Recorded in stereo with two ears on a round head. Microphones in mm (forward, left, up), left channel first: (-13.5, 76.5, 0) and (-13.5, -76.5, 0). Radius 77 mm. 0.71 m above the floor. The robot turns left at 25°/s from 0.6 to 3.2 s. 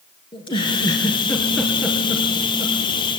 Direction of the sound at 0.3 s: 30° left (ahead or behind).